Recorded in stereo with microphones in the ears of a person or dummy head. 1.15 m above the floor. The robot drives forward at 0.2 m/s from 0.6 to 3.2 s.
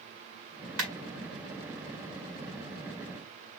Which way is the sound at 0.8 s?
90° right.